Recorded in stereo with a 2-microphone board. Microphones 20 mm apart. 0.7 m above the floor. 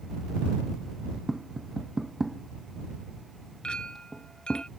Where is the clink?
50° left (ahead or behind).